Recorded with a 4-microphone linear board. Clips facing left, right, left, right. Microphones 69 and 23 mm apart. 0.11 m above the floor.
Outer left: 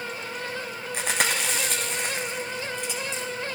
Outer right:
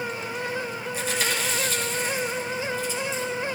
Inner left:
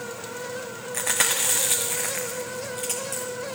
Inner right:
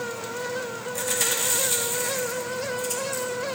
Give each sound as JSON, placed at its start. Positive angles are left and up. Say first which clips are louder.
{"t": 0.9, "sound": "chewing", "louder": "outer left 2 dB, inner left 2 dB", "side_deg": 70, "distance_m": 2.5}